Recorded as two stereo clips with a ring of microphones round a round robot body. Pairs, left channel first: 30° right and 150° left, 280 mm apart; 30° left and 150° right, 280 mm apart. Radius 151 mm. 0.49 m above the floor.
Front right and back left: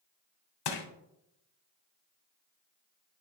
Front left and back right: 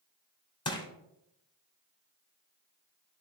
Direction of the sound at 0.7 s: 45° right.